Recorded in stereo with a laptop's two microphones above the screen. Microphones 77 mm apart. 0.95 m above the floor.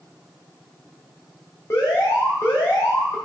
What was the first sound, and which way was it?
An alarm, 35° left (ahead or behind).